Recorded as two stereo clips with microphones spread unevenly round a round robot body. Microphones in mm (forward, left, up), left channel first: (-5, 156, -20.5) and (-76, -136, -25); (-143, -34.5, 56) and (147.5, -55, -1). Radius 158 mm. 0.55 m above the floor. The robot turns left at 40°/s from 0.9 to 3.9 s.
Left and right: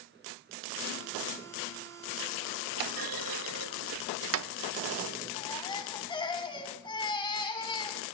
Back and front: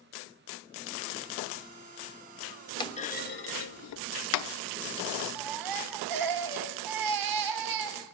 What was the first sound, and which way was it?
A clunk, 105° right.